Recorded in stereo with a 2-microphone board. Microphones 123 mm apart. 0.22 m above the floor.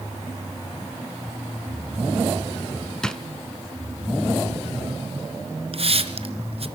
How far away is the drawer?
About 1.0 m.